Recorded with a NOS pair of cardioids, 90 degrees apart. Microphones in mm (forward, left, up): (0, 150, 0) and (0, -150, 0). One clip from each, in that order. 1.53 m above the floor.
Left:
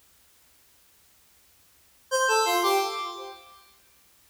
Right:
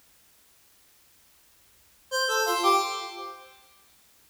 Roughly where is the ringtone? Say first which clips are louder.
Left 3 dB; ahead.